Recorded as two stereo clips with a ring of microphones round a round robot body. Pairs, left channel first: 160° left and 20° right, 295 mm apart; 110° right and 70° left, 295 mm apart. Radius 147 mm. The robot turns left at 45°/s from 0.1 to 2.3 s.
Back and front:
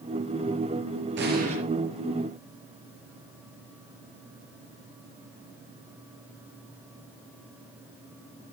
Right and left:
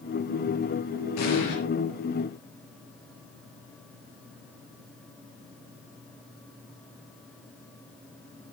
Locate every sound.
1.2 s an explosion: 75° right, 5.5 m; by 1.6 s 95° right, 5.5 m